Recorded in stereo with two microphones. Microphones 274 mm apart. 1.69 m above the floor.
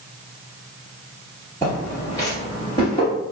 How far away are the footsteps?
About 1.9 m.